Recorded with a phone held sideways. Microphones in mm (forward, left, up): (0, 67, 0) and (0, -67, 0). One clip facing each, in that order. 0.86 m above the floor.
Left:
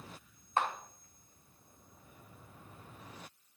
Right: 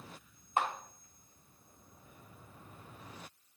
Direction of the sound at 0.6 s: 15° right (ahead or behind).